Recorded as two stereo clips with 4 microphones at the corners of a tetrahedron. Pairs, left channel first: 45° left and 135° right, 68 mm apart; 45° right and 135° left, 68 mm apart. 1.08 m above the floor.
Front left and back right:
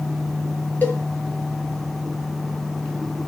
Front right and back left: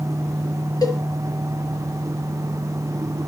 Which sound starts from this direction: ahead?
A cowbell, at 0.8 s.